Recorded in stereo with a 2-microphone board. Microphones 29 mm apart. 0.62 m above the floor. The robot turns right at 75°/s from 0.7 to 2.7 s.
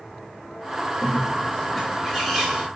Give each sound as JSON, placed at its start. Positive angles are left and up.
{"t": 1.0, "sound": "a bird", "azimuth_deg": 110, "distance_m": 1.4}